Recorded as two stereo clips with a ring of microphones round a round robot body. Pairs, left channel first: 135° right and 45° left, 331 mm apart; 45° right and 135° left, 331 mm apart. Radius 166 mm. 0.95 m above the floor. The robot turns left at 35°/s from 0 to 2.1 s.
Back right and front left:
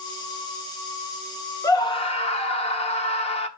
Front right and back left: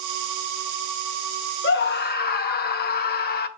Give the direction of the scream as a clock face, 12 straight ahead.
2 o'clock.